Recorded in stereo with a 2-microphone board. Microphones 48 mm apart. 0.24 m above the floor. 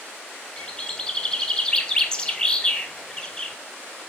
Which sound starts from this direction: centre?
A bird, at 0.6 s.